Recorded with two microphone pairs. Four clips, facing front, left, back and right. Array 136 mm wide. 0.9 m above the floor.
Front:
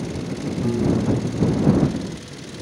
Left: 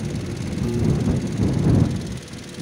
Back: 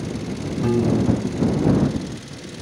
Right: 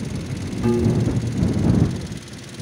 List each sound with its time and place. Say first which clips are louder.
0.6 s a piano: right 3 dB, back 2 dB; 135° right